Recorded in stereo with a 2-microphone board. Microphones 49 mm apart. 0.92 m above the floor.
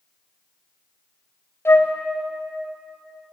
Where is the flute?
70° left (ahead or behind), 0.7 m.